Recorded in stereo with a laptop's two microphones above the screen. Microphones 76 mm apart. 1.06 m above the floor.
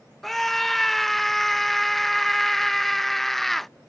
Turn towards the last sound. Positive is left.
turn(degrees=5)  # may be behind; listen again after turning